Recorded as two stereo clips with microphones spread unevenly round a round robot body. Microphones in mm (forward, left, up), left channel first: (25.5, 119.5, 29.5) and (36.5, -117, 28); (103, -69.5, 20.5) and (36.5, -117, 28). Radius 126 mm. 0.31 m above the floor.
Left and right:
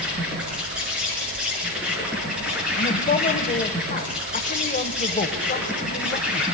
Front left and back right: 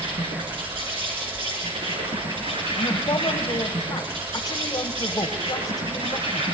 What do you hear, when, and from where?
0.0 s an insect: 175° right, 7 m
2.8 s a woman speaking: 45° left, 1.3 m